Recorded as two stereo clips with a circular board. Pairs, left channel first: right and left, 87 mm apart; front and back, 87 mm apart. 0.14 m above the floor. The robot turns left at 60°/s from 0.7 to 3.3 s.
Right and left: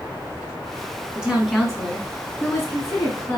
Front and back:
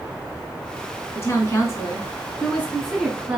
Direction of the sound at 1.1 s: 20° left.